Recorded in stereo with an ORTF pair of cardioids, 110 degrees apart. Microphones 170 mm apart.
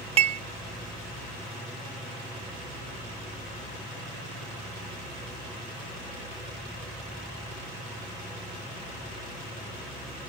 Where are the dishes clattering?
40° right.